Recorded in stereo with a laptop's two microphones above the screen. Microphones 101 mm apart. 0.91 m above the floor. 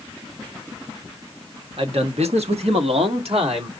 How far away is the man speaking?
About 1.2 m.